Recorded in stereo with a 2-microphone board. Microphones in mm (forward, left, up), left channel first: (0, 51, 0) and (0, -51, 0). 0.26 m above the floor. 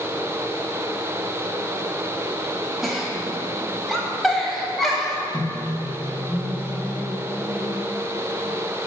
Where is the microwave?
20° left (ahead or behind), 1.0 m.